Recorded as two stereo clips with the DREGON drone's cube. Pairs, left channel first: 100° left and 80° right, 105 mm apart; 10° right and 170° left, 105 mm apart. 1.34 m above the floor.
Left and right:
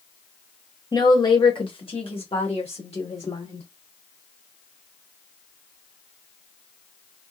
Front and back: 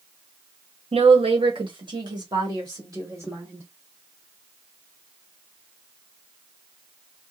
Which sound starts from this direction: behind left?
A woman speaking, at 0.9 s.